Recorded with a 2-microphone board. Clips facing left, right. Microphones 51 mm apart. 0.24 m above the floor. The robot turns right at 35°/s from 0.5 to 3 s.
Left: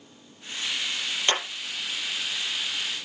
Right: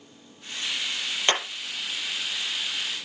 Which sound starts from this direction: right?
Hammering, at 1.3 s.